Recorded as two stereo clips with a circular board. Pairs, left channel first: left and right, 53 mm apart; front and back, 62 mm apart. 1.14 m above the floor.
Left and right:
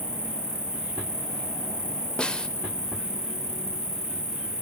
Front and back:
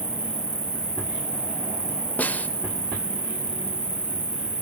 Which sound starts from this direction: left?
An insect, at 0.0 s.